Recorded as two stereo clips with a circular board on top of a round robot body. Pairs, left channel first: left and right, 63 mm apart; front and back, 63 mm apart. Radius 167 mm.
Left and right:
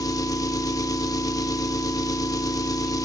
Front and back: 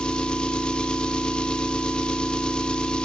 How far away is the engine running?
About 1.3 m.